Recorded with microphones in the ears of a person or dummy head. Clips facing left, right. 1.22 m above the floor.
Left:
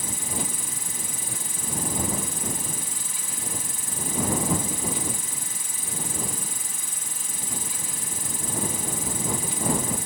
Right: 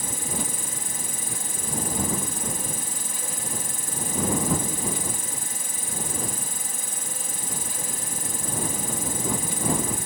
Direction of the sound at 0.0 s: 45° right (ahead or behind).